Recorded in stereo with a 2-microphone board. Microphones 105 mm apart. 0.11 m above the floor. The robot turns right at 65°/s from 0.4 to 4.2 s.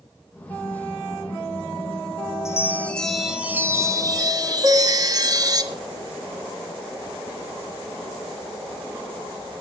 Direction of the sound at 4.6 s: 30° right (ahead or behind).